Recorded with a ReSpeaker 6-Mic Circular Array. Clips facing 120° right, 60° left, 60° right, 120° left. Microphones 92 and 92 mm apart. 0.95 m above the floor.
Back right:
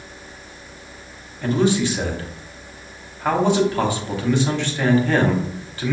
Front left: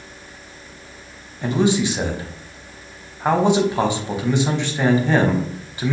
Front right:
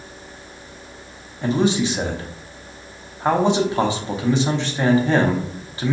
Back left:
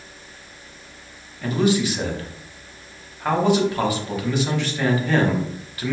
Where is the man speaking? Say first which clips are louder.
Even, front right 1 dB; 5° right, 0.7 m.